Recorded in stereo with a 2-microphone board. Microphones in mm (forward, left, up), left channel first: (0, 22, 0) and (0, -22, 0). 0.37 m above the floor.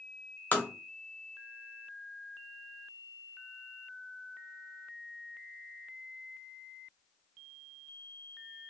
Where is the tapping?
40° left (ahead or behind), 0.8 m.